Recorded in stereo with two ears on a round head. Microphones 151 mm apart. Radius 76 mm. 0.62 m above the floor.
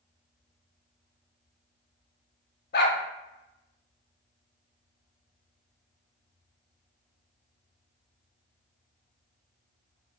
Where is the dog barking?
65° left (ahead or behind), 0.7 m.